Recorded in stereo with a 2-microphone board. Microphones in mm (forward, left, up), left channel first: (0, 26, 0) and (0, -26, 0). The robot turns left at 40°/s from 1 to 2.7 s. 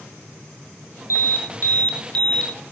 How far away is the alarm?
About 4 m.